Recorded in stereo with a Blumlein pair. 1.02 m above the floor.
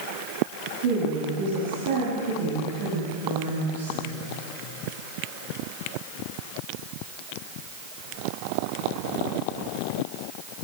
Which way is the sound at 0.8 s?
55° right.